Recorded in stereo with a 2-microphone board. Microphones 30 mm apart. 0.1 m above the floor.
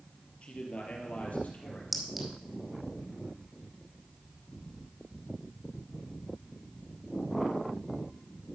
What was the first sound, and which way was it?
A man speaking, 45° left (ahead or behind).